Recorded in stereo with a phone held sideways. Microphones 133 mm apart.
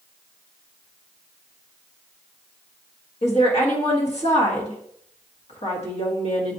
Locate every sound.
3.2 s a woman speaking: 55° left (ahead or behind), 1.4 m